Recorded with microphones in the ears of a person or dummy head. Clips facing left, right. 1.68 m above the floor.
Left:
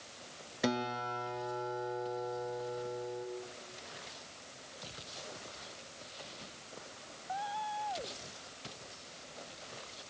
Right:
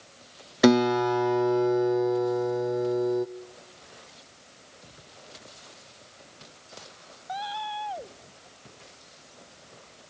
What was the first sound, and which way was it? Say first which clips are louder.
A guitar: right 16 dB; 65° right (ahead or behind).